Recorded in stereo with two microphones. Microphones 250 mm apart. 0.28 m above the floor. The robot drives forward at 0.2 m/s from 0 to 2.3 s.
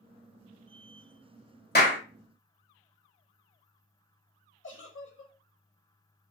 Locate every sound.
1.8 s a clap: 40° left (ahead or behind), 0.9 m
4.6 s a giggle: 50° left (ahead or behind), 0.6 m